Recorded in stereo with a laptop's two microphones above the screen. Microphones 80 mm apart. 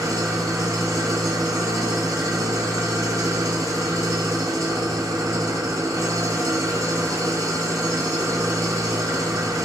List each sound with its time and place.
0.0 s an engine running: 40° right (ahead or behind), 0.7 m